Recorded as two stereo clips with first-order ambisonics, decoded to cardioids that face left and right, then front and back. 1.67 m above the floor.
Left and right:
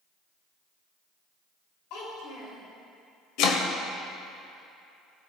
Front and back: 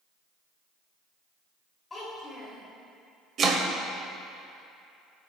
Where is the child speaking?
75° left, 2.5 m.